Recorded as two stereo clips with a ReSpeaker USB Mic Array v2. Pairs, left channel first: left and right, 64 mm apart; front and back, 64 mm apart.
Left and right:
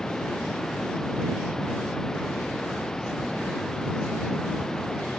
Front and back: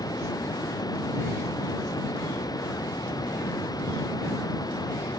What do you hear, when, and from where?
0.0 s running water: 10° left